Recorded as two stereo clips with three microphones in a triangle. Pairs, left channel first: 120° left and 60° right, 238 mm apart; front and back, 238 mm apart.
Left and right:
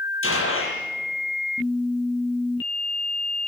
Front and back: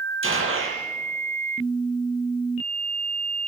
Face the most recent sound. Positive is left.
turn(degrees=150)